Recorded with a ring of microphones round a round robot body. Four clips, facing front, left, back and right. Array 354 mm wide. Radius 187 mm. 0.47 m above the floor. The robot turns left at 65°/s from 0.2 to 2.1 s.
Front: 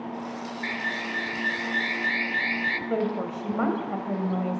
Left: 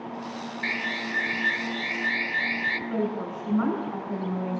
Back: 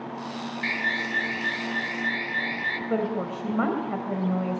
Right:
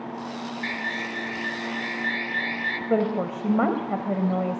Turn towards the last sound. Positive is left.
turn(degrees=-100)